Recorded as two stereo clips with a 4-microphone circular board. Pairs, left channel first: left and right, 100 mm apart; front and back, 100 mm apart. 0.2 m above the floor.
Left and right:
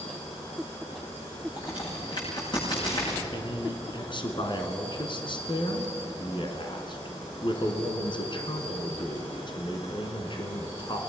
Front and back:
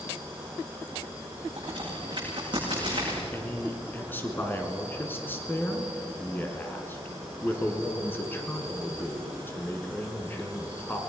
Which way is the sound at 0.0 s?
105° left.